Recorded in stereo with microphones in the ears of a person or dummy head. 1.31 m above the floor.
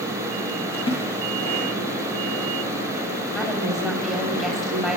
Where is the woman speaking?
Centre (ahead or behind), 7.5 m.